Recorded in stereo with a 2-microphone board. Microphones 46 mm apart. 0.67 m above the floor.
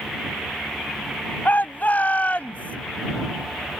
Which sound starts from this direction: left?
A shout, at 1.4 s.